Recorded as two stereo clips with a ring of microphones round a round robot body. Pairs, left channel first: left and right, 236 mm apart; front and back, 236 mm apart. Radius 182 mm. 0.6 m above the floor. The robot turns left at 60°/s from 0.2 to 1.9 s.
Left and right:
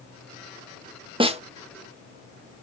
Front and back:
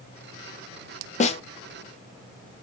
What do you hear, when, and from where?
1.2 s a snare drum: 35° right, 1.3 m; by 1.4 s 50° right, 1.3 m